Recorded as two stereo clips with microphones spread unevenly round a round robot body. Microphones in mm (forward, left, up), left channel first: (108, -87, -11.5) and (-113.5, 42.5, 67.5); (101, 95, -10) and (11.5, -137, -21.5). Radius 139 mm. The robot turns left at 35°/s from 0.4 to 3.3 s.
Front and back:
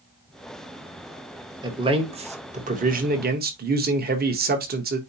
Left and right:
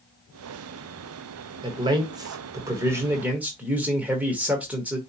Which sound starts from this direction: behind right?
A man speaking, at 1.6 s.